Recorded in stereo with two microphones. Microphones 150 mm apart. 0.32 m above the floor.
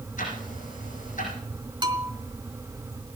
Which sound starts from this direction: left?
Ticking, at 0.2 s.